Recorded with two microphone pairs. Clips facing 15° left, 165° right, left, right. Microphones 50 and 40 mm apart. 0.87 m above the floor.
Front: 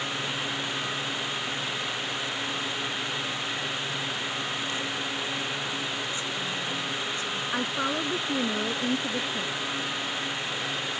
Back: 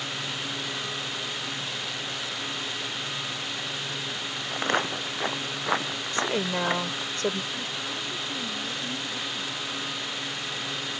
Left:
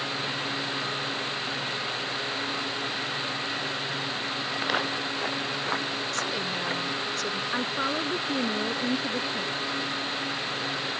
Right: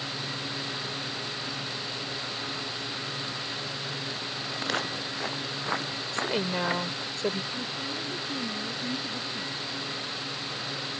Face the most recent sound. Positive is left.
turn(degrees=60)